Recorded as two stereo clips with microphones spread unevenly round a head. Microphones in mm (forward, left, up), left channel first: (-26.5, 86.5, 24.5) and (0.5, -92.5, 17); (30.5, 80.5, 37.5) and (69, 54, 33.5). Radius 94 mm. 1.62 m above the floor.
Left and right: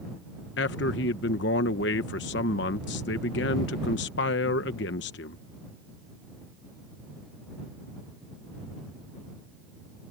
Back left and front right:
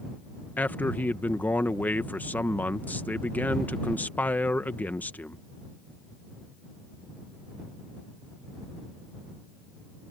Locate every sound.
0.6 s a man speaking: 100° left